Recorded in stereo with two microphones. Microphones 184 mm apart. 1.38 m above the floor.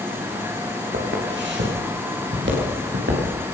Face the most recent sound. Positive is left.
turn(degrees=-80)